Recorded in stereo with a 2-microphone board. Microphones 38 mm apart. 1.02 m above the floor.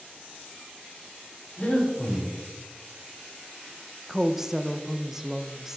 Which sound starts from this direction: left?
Breathing, at 1.6 s.